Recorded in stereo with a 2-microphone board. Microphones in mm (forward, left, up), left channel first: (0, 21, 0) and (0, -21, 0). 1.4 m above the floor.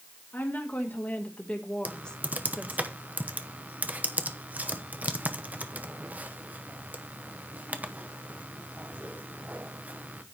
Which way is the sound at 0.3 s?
55° left (ahead or behind).